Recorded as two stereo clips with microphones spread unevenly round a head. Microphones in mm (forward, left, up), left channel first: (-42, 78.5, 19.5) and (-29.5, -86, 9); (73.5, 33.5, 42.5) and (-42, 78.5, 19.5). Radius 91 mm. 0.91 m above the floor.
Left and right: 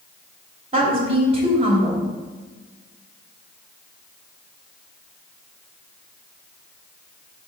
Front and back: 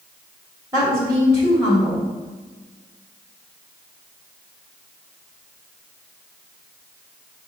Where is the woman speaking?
135° right, 2.5 m.